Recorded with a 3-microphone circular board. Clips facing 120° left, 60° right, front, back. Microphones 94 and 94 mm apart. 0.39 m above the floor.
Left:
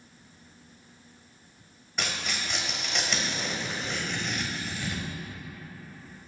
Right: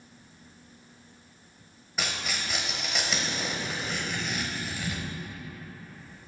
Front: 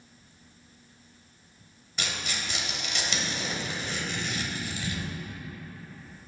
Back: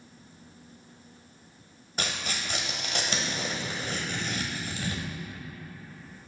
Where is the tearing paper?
145° right, 1.2 m.